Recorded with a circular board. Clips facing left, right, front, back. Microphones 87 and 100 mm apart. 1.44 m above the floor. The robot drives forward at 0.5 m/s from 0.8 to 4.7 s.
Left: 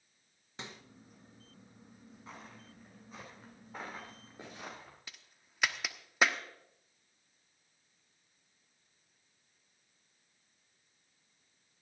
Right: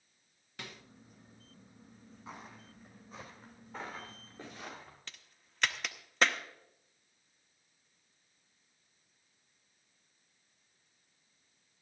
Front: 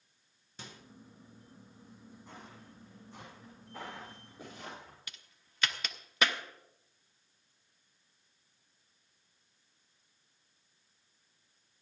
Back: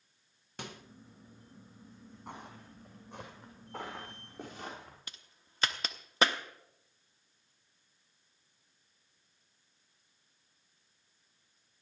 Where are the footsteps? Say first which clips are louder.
Right 2 dB, back 6 dB; 170° right, 4 m; by 5.0 s 160° left, 6.5 m.